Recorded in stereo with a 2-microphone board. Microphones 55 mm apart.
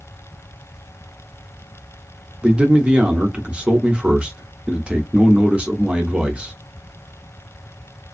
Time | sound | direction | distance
2.4 | a man speaking | 20° right (ahead or behind) | 0.7 m